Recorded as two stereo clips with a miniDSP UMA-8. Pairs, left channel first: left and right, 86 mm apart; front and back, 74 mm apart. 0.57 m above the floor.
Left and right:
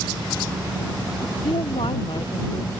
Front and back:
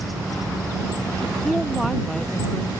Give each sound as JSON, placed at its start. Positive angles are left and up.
{"t": 1.2, "sound": "a woman speaking", "azimuth_deg": 90}